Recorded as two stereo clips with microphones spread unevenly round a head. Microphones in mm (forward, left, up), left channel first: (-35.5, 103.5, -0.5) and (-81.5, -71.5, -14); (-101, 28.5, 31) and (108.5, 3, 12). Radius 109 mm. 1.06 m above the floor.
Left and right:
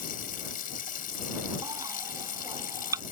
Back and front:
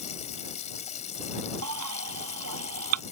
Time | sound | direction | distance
0.0 | running water | 115° left | ?
1.6 | a baby crying | 25° right | ?